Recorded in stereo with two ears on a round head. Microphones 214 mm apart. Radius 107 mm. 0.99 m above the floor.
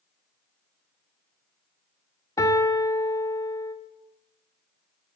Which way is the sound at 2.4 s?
15° left (ahead or behind).